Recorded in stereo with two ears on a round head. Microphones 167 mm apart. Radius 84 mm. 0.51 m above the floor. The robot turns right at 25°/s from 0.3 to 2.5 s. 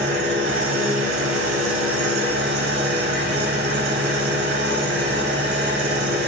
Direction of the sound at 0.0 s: 115° right.